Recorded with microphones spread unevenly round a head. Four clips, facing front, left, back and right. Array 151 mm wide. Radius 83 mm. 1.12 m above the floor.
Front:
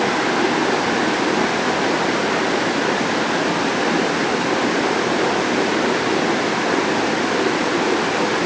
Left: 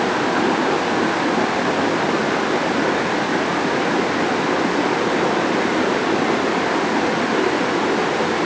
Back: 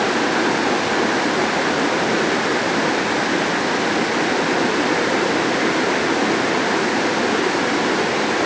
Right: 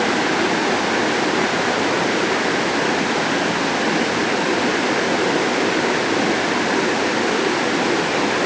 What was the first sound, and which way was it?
Only background noise.